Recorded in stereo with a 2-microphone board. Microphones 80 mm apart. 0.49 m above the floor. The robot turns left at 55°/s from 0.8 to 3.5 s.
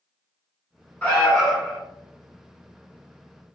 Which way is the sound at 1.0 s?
15° left (ahead or behind).